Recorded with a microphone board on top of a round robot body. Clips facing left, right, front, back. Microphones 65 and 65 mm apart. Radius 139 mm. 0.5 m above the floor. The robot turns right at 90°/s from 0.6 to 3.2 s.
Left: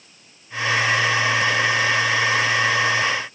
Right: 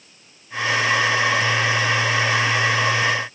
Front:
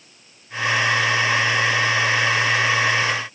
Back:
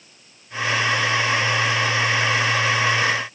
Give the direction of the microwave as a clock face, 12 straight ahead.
No microwave in this recording.